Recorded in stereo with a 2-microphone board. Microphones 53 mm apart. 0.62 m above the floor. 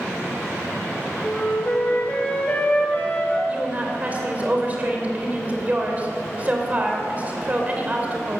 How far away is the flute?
About 2.5 m.